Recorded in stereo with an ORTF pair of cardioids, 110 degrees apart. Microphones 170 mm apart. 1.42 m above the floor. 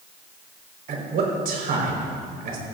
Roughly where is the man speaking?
Ahead right.